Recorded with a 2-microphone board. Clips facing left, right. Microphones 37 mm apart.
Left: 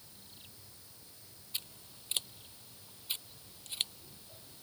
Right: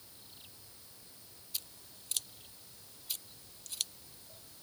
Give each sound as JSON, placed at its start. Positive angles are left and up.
{"t": 1.5, "sound": "scissors", "side_deg": 25}